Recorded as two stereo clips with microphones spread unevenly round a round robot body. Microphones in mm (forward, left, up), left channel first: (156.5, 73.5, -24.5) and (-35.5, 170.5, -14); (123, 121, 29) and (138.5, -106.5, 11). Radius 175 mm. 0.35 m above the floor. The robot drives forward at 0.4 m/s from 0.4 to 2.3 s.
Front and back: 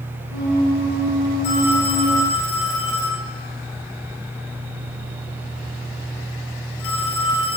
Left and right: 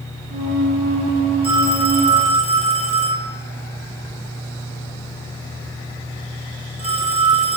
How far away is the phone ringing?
About 3 m.